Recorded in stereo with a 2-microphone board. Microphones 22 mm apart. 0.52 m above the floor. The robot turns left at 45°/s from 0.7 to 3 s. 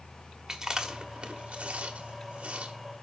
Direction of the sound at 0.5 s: 30° right (ahead or behind).